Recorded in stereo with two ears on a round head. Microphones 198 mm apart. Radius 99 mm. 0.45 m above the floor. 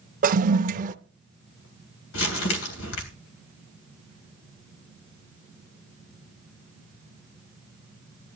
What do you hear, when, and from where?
0.2 s a toilet flushing: 35° right (ahead or behind), 0.6 m
2.1 s crumpling: 65° left (ahead or behind), 3 m